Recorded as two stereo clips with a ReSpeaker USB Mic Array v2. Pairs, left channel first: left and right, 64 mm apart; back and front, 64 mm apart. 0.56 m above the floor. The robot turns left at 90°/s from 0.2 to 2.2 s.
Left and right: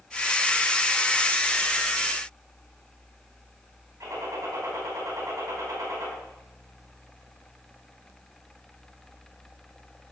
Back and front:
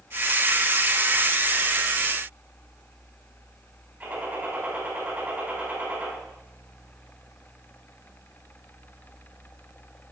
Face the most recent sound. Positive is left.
turn(degrees=-55)